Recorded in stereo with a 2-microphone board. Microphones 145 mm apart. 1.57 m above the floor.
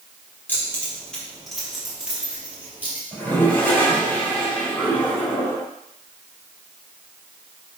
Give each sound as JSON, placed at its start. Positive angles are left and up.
{"t": 0.5, "sound": "keys jangling", "side_deg": 15, "distance_m": 3.5}
{"t": 3.1, "sound": "a toilet flushing", "side_deg": 10, "distance_m": 3.5}